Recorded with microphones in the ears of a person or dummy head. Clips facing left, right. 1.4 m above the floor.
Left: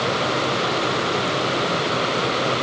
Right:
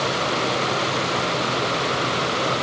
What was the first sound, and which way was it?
Only background noise.